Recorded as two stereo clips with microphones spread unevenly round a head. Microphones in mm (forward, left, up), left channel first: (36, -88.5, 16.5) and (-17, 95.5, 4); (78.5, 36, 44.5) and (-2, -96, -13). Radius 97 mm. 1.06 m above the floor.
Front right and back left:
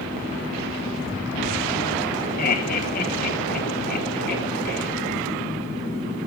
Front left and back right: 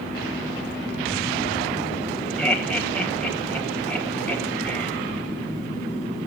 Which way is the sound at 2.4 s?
30° right.